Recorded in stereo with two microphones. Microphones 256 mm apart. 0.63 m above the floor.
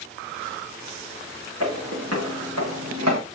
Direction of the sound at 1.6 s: 70° right (ahead or behind).